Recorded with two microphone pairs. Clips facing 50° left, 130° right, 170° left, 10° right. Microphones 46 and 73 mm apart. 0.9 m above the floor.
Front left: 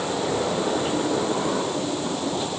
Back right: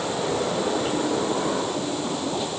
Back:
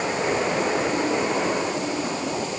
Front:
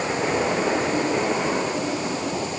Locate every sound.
Only background noise.